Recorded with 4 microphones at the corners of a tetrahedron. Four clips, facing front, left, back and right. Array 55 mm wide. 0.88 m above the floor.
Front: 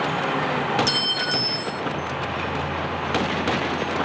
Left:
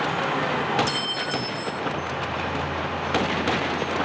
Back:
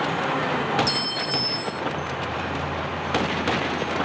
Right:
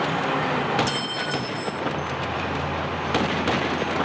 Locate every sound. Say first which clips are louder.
0.9 s a clink: even, front 3 dB; straight ahead, 1.2 m